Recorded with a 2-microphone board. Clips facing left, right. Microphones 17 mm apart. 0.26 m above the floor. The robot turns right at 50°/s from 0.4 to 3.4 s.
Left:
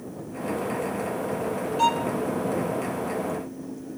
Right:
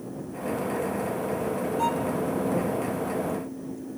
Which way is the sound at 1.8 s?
45° left (ahead or behind).